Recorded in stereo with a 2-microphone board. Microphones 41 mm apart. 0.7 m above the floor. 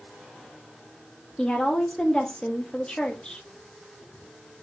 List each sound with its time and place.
1.4 s a woman speaking: 20° left (ahead or behind), 0.6 m